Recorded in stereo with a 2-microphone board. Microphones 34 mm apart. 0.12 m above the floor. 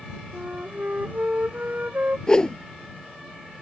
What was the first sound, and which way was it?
A flute, 55° right (ahead or behind).